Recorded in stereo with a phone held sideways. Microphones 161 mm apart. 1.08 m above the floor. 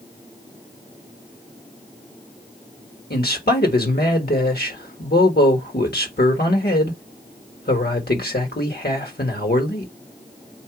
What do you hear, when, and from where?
3.1 s a man speaking: 75° left (ahead or behind), 1.4 m